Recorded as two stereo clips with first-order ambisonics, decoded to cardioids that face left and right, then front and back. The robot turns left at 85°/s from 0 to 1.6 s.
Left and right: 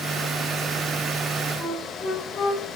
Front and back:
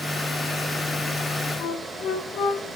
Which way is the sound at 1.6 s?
60° left.